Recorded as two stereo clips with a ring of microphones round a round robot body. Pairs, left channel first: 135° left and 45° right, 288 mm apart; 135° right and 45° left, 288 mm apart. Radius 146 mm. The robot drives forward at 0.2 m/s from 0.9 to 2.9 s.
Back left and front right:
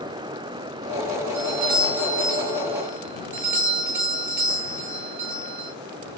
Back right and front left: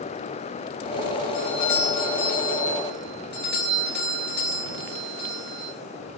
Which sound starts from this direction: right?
A doorbell, at 1.3 s.